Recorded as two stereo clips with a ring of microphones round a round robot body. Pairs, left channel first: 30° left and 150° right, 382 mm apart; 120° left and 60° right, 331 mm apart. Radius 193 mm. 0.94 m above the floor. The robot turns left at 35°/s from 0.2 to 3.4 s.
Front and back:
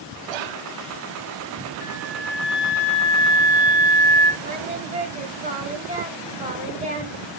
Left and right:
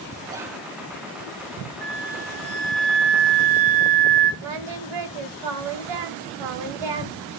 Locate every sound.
0.3 s whispering: 140° right, 1.0 m; by 0.6 s 150° right, 1.0 m
1.8 s a flute: 10° right, 3 m; by 4.3 s 65° right, 3 m
4.4 s singing: 75° right, 2.5 m